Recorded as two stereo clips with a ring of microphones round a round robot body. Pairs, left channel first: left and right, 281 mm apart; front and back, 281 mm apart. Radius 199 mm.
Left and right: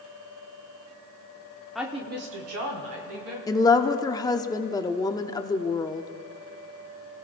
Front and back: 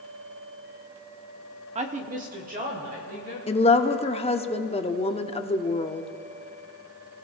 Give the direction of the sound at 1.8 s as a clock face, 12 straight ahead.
6 o'clock.